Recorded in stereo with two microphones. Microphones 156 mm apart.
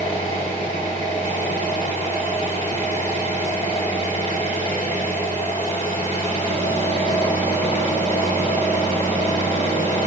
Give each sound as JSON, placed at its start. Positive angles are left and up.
{"t": 0.0, "sound": "an engine running", "side_deg": 50, "distance_m": 3.5}